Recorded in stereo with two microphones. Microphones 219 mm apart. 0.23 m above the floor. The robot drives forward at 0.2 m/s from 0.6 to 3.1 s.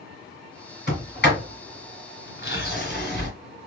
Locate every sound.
0.9 s a sliding door: 50° left (ahead or behind), 1.7 m